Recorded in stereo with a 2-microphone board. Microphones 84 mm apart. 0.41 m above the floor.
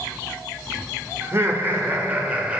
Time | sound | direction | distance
1.2 | laughter | 30° right (ahead or behind) | 1.7 m